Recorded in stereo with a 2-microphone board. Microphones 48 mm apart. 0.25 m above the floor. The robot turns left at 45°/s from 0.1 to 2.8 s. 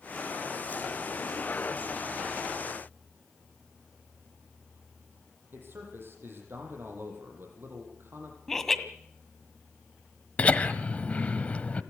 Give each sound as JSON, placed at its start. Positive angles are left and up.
{"t": 5.5, "sound": "a man speaking", "side_deg": -50, "distance_m": 8.0}
{"t": 8.5, "sound": "laughter", "side_deg": 5, "distance_m": 1.7}
{"t": 10.4, "sound": "laughter", "side_deg": 25, "distance_m": 1.3}